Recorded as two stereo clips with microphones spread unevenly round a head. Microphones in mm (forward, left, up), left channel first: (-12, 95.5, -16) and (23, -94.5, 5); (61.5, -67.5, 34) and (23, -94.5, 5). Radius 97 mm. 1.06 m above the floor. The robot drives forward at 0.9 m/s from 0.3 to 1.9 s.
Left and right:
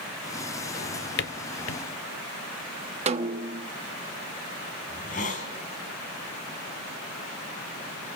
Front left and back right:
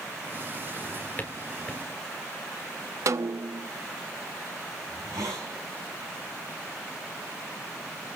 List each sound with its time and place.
0.7 s a drawer: 55° left, 1.3 m; by 1.8 s 105° left, 1.1 m
3.1 s a snare drum: 140° right, 1.2 m
4.9 s a hiss: 155° left, 3.5 m